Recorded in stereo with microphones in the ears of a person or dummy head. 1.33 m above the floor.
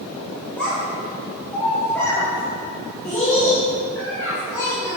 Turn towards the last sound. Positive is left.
turn(degrees=15)  # may be behind; listen again after turning